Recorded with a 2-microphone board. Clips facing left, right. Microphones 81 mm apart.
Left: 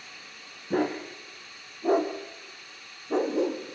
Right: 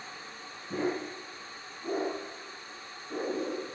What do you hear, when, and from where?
0.7 s a dog barking: 65° left (ahead or behind), 6 m; by 3.8 s 75° left (ahead or behind), 5 m